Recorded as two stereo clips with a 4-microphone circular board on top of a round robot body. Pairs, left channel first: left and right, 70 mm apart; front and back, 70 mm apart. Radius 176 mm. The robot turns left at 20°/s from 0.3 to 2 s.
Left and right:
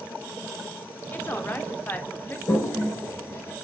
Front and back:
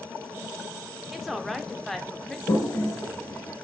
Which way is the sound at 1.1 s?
95° left.